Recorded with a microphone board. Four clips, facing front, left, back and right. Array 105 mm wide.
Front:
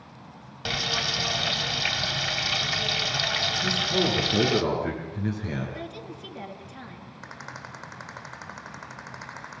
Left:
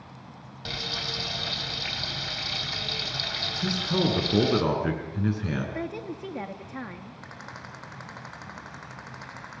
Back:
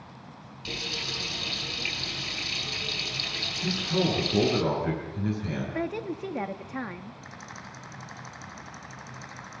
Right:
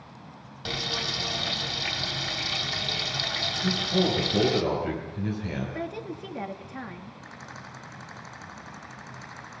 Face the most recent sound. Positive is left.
turn(degrees=30)